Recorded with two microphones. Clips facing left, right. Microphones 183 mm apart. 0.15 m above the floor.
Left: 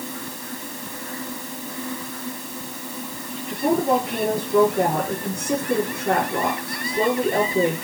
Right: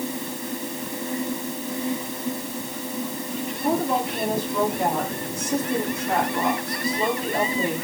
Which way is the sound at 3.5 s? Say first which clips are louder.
Left 4 dB; 60° left (ahead or behind).